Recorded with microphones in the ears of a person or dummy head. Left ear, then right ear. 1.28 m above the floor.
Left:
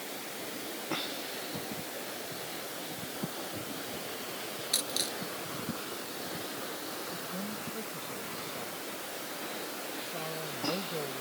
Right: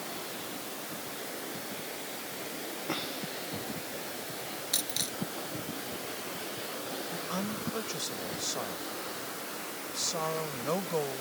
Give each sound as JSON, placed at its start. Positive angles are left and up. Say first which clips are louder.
{"t": 4.7, "sound": "a dropped coin", "louder": "left 1 dB", "side_deg": -10}
{"t": 7.1, "sound": "a woman speaking", "louder": "right 3 dB", "side_deg": -70}